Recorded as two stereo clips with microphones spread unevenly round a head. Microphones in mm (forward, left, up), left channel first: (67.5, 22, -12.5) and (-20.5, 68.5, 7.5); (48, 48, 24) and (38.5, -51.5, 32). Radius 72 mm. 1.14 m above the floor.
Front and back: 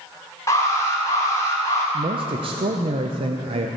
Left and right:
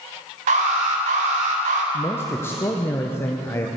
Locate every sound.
0.5 s an alarm: 100° right, 1.9 m
1.9 s a man speaking: 135° left, 0.8 m